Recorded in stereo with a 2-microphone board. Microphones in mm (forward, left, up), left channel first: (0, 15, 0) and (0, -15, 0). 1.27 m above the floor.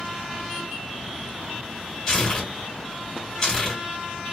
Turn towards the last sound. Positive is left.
turn(degrees=25)  # may be behind; listen again after turning